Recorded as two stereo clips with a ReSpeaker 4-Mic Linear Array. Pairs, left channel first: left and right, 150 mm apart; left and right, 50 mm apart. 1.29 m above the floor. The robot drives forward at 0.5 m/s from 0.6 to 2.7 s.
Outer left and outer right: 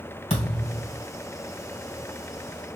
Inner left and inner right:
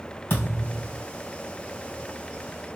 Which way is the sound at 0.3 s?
50° left (ahead or behind).